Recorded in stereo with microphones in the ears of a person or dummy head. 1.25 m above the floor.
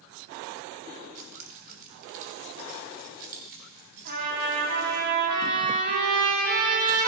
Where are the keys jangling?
40° right (ahead or behind), 1.4 m; by 5.0 s 50° right (ahead or behind), 3.5 m.